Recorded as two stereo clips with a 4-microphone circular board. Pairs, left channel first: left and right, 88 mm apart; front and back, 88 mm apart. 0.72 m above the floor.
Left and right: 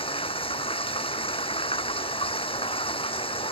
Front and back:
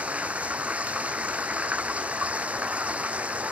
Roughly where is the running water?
Left.